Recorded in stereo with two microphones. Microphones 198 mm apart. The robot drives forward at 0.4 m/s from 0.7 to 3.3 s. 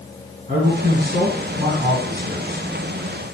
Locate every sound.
0.5 s a man speaking: 40° right (ahead or behind), 3 m; by 3.2 s 30° right (ahead or behind), 4 m